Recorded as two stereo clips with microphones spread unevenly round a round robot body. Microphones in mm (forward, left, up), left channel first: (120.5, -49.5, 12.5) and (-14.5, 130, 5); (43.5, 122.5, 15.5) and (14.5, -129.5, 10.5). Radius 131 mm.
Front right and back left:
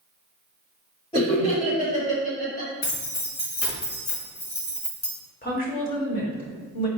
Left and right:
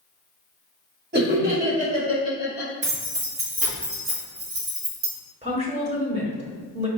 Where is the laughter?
115° right, 1.6 m; by 2.7 s 20° right, 1.5 m.